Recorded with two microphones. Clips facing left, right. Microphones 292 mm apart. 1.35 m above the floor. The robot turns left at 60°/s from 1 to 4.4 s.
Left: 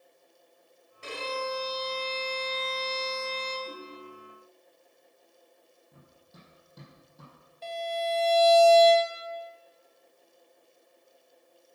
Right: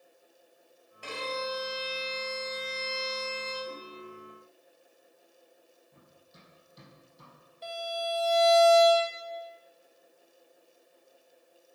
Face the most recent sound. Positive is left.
turn(degrees=-15)  # may be behind; listen again after turning